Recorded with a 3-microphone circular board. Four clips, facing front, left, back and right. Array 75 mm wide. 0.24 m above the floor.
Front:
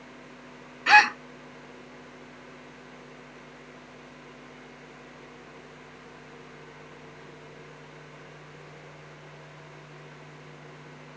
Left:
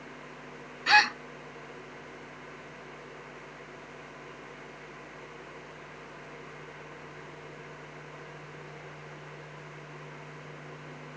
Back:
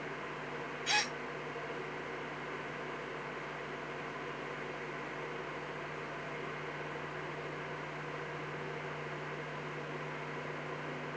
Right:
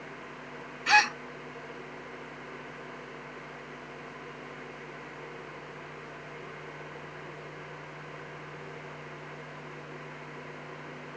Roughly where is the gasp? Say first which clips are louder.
Left 1 dB, front 19 dB; ahead.